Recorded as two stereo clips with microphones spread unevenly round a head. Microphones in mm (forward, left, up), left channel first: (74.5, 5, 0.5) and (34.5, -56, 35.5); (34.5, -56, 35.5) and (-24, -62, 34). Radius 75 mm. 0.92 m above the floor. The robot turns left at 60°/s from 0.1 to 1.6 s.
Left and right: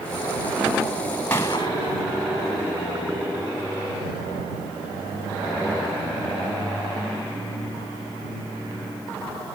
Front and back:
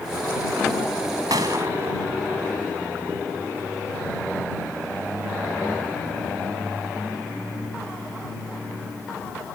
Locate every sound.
1.3 s a gunshot: 135° left; by 2.0 s 120° left